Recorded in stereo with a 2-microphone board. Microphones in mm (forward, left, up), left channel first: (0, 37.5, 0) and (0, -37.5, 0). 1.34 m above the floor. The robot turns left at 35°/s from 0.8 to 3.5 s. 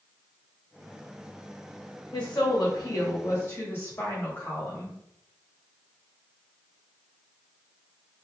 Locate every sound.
2.1 s a woman speaking: 80° left, 1.4 m; by 5.0 s 30° left, 1.4 m